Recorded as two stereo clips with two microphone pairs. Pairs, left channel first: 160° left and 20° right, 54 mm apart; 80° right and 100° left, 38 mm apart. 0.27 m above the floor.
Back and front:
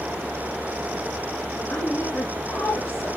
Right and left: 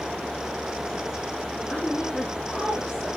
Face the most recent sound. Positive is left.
turn(degrees=-140)